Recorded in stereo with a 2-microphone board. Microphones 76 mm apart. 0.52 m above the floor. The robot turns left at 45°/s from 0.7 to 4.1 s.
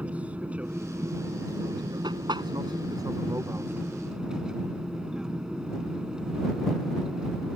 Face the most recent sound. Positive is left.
turn(degrees=-170)